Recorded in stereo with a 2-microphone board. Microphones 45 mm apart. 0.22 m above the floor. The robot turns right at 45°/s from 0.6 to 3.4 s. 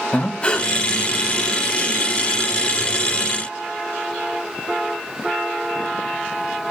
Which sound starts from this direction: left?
Breathing, at 0.1 s.